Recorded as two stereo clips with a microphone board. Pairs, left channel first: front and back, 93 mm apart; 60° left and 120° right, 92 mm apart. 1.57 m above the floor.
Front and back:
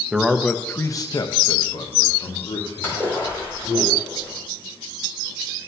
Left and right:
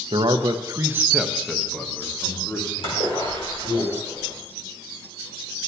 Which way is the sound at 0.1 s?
100° right.